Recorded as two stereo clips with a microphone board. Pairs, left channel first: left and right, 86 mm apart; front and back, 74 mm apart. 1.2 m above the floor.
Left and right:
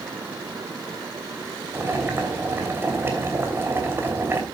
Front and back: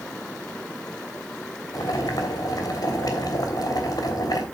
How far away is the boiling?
About 3 m.